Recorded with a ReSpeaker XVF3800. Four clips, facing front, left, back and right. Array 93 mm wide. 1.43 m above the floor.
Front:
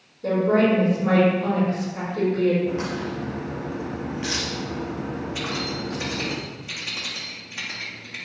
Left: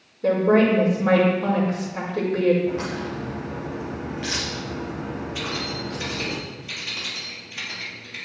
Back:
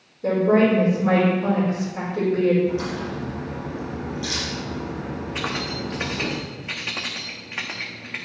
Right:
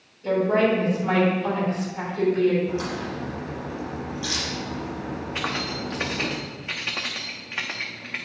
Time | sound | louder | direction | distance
0.2 | a woman speaking | left 3 dB, back 2 dB | 100° left | 5.5 m
2.7 | a crack | left 1 dB, back 1 dB | 40° left | 5.5 m
5.3 | keys jangling | right 1 dB, back 1 dB | 135° right | 1.5 m